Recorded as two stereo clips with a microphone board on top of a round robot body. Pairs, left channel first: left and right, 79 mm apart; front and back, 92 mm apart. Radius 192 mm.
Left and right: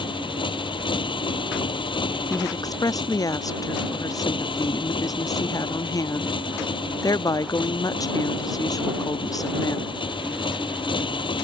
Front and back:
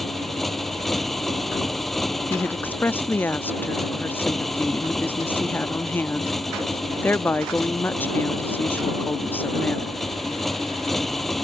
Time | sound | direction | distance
0.0 | a motorcycle | 90° left | ?
2.3 | a woman speaking | 65° left | ?